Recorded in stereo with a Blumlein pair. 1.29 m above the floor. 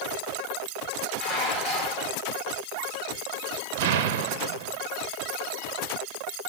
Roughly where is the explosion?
Ahead right.